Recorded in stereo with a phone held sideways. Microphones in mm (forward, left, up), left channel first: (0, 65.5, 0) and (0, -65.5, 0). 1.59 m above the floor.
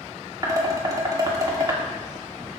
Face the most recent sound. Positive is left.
turn(degrees=-30)  # may be behind; listen again after turning